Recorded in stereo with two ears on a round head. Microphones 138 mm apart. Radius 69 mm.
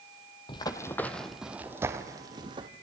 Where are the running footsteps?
30° left (ahead or behind), 1.5 m; by 2.7 s 35° right (ahead or behind), 2.5 m.